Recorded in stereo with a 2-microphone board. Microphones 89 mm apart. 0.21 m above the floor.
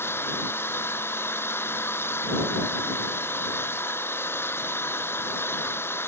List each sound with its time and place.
0.0 s an engine running: 25° left (ahead or behind)